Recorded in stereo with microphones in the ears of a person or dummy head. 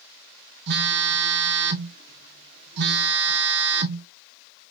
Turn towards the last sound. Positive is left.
turn(degrees=-60)  # may be behind; listen again after turning